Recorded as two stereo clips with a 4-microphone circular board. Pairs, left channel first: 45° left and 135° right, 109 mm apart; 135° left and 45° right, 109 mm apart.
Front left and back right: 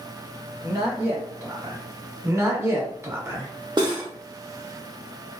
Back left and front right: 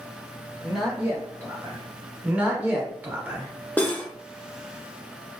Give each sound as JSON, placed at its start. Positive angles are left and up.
{"t": 0.6, "sound": "a man speaking", "azimuth_deg": -145, "distance_m": 1.0}
{"t": 2.2, "sound": "a man speaking", "azimuth_deg": -105, "distance_m": 0.8}
{"t": 3.8, "sound": "cutlery clinking", "azimuth_deg": -160, "distance_m": 0.7}